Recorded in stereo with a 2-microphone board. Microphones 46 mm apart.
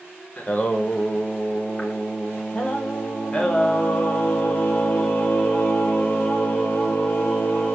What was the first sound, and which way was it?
Singing, 25° left (ahead or behind).